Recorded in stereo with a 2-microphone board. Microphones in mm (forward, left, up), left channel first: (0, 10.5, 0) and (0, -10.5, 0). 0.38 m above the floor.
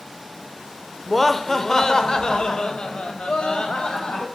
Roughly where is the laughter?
Centre.